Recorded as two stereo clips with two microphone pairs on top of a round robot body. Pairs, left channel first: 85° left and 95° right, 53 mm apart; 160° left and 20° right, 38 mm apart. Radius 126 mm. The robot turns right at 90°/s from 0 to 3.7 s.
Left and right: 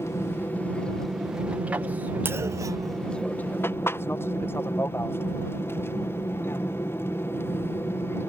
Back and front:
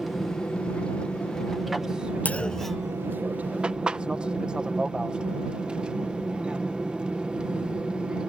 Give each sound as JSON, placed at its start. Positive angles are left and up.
{"t": 0.0, "sound": "an aircraft", "azimuth_deg": 85}
{"t": 2.2, "sound": "a clunk", "azimuth_deg": -145}